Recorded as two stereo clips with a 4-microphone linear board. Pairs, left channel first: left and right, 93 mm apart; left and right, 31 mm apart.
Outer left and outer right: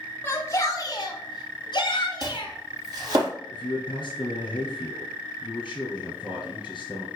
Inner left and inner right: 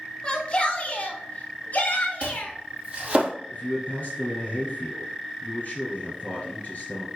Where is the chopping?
40° right (ahead or behind), 4 m.